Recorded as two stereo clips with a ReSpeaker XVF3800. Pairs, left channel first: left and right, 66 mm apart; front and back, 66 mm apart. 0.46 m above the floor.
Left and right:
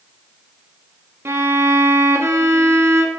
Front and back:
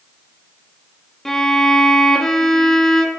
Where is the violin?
80° right, 0.5 m.